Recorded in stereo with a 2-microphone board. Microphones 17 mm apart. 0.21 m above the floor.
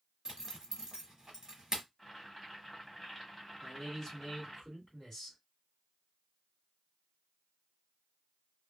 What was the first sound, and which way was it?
A zipper, 35° right (ahead or behind).